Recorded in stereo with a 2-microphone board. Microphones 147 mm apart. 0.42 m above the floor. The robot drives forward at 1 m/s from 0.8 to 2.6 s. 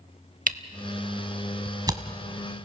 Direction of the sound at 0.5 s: 70° right (ahead or behind).